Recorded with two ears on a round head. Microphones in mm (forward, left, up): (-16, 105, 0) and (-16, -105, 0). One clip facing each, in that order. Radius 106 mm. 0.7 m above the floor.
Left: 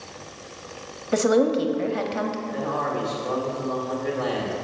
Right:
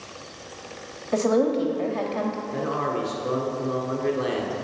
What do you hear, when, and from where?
1.1 s a woman speaking: 20° left (ahead or behind), 0.9 m
2.5 s a man speaking: 30° right (ahead or behind), 1.7 m